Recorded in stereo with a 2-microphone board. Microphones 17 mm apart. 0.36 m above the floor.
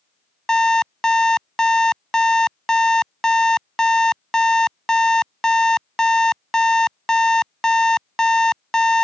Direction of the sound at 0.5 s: 40° left (ahead or behind).